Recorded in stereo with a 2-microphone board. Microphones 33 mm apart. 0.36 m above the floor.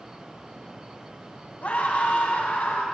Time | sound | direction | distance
1.6 | a scream | 50° left (ahead or behind) | 3 m